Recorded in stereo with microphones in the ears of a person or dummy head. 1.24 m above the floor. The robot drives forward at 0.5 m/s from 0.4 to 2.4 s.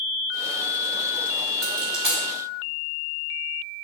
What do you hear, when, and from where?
1.6 s a dropped coin: centre (ahead or behind), 2.0 m